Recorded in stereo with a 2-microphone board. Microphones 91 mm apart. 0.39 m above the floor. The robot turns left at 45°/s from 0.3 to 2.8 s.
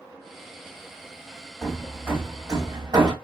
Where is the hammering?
Centre (ahead or behind), 1.2 m; by 3.1 s 50° right (ahead or behind), 1.2 m.